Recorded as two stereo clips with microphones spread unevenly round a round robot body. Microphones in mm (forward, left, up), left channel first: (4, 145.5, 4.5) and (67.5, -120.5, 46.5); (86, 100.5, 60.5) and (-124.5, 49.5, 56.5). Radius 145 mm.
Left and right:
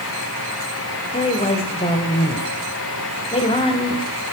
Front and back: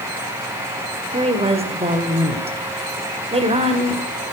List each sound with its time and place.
1.1 s a woman speaking: 150° left, 1.9 m